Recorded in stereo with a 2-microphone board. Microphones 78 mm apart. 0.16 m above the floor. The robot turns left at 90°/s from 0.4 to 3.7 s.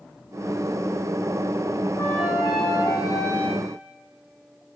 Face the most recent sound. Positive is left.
turn(degrees=0)